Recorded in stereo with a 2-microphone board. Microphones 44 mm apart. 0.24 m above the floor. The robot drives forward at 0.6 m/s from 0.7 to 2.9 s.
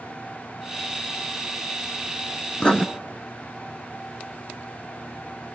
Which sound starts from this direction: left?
Writing, at 2.6 s.